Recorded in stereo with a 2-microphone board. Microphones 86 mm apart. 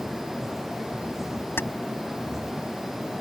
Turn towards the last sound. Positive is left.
turn(degrees=25)  # may be behind; listen again after turning